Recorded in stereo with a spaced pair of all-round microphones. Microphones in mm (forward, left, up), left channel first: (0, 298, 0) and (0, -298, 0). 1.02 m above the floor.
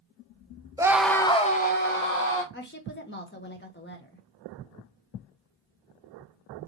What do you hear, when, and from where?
0.8 s a scream: 5° right (ahead or behind), 0.6 m; by 2.4 s 20° left (ahead or behind), 1.1 m
2.5 s a woman speaking: 20° left (ahead or behind), 1.0 m